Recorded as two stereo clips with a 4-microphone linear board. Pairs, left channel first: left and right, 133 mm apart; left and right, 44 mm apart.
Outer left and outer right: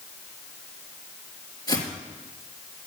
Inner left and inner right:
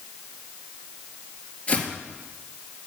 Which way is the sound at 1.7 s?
30° left (ahead or behind).